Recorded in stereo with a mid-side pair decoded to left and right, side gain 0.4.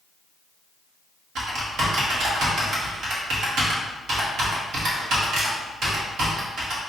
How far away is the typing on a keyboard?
About 1.1 m.